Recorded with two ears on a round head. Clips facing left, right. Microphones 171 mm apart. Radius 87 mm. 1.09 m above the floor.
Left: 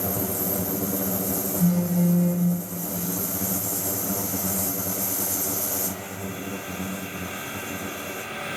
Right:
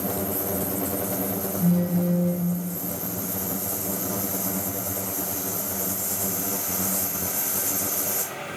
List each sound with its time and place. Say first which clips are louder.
1.6 s a phone buzzing: left 1 dB; 35° left (ahead or behind), 0.9 m